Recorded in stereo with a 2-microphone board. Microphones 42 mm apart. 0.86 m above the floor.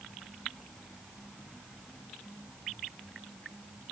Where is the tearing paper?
I don't hear tearing paper.